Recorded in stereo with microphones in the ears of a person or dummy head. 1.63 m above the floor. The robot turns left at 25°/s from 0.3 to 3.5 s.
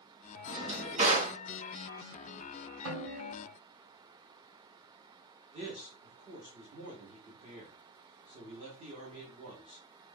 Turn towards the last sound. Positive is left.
turn(degrees=-30)  # may be behind; listen again after turning